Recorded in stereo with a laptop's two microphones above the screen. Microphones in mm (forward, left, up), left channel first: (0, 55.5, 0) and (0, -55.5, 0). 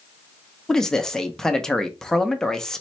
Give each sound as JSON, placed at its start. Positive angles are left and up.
{"t": 0.7, "sound": "a man speaking", "side_deg": 5, "distance_m": 0.6}